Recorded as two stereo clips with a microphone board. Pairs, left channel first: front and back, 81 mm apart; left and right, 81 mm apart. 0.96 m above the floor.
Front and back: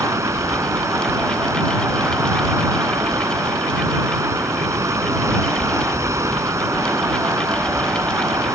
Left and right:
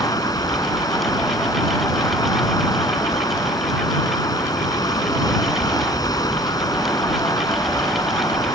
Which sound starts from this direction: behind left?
Running water, at 0.0 s.